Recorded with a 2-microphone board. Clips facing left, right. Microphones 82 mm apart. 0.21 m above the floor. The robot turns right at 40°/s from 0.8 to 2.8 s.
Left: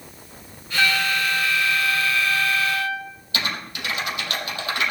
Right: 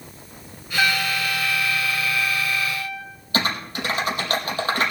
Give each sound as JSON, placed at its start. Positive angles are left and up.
{"t": 0.8, "sound": "a trumpet", "azimuth_deg": -10, "distance_m": 10.0}
{"t": 3.3, "sound": "typing on a keyboard", "side_deg": -35, "distance_m": 4.5}